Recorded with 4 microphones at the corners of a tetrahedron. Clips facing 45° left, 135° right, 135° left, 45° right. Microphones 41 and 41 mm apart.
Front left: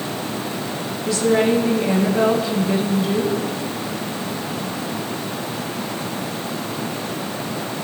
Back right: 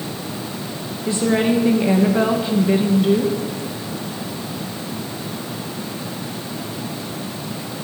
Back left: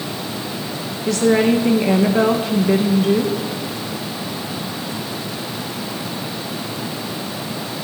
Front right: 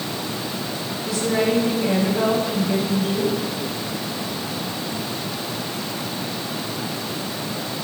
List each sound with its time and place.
1.1 s a woman speaking: 160° left, 1.9 m